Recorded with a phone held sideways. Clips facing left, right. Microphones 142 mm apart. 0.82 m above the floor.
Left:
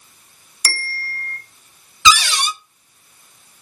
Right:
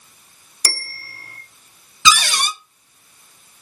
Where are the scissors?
I don't hear scissors.